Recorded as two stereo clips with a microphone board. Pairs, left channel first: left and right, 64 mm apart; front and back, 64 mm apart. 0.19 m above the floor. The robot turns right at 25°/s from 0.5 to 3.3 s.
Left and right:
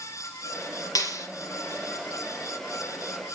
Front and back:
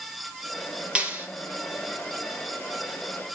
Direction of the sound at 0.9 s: 110° left.